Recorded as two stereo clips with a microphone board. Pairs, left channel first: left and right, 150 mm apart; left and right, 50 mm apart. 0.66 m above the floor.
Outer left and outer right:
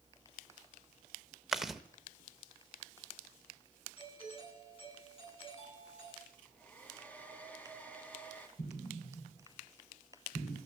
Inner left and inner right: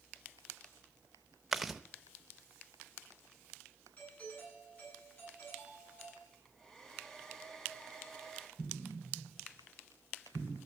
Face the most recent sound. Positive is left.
turn(degrees=75)  # may be behind; listen again after turning